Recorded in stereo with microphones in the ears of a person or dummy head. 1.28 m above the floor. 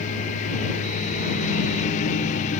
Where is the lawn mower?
40° left (ahead or behind).